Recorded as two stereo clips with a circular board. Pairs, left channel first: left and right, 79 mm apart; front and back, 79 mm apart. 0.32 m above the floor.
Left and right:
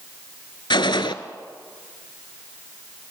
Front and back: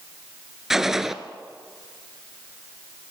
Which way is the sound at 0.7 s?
95° left.